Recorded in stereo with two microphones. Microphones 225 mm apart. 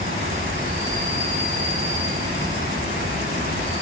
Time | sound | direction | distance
0.0 | an insect | 30° right (ahead or behind) | 7.5 m